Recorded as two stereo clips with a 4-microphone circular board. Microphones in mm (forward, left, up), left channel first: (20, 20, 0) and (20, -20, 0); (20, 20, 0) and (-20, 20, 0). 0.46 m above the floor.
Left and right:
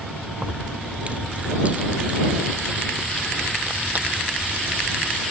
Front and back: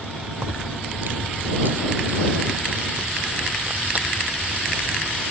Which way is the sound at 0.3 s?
150° right.